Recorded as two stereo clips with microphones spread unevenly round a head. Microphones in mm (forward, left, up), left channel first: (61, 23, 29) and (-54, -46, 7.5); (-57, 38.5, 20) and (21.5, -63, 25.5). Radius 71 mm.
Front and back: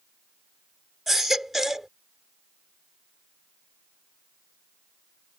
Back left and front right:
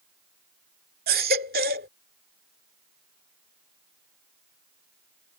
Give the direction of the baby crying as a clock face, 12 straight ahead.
2 o'clock.